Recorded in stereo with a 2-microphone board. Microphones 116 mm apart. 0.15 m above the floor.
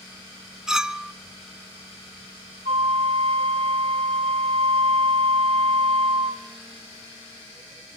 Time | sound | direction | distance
0.7 | a clink | 5° right (ahead or behind) | 0.7 m
2.6 | a flute | 65° right (ahead or behind) | 3 m